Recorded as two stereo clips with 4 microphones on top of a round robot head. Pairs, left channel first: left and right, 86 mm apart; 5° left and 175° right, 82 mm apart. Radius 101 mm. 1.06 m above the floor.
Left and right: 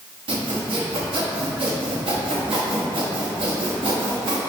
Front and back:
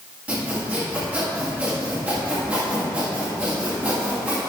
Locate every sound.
0.3 s sawing: 105° right, 1.8 m